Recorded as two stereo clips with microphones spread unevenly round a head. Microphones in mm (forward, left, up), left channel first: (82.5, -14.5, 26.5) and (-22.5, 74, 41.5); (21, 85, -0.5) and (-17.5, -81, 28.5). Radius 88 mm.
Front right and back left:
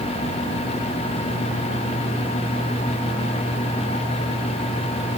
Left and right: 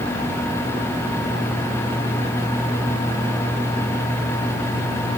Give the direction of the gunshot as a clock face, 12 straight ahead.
No gunshot in this recording.